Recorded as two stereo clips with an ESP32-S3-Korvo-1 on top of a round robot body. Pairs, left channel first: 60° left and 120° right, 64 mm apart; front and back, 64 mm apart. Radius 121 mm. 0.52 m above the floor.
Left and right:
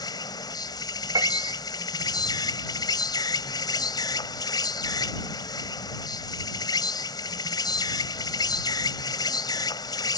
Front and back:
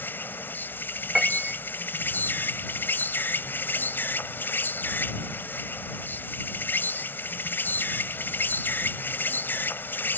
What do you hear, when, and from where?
0.0 s an insect: 60° left
1.1 s a piano: 95° right